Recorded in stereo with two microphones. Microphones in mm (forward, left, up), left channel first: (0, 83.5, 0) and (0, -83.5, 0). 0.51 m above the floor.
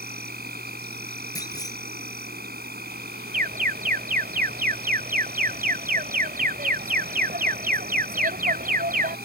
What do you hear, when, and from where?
0.0 s an insect: 75° right (ahead or behind)
1.4 s a clunk: 20° left (ahead or behind)
3.3 s an alarm: 60° right (ahead or behind)